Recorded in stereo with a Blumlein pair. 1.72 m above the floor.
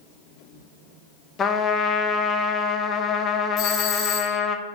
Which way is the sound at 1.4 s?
20° left.